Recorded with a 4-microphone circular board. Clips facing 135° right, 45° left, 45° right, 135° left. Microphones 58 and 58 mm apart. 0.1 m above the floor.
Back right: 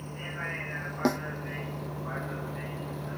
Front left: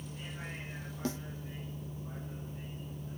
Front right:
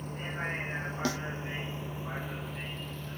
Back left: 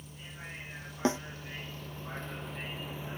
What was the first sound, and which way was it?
A vehicle, 85° right.